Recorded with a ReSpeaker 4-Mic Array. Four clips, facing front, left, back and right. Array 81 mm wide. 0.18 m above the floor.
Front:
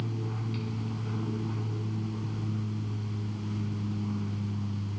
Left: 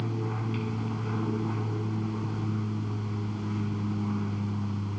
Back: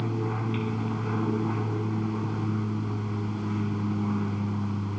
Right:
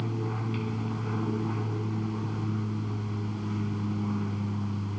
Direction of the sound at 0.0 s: Straight behind.